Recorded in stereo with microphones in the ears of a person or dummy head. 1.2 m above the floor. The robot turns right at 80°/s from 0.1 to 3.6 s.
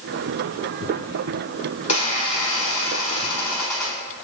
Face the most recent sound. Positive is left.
turn(degrees=175)